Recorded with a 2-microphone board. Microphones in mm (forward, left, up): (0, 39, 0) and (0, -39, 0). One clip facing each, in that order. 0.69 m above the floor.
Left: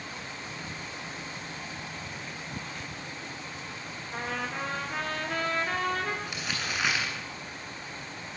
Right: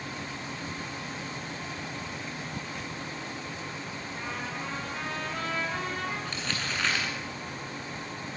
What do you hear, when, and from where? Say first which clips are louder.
4.1 s a trumpet: left 4 dB; 65° left (ahead or behind), 5 m
6.2 s crumpling: right 1 dB; 10° left (ahead or behind), 8 m